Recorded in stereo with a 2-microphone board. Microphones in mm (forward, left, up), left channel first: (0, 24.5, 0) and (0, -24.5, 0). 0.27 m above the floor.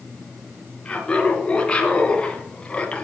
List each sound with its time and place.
0.8 s laughter: 20° left (ahead or behind), 3 m